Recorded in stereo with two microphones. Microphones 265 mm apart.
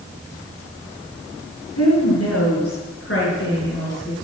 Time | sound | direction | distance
1.8 | a woman speaking | 70° left (ahead or behind) | 6.5 m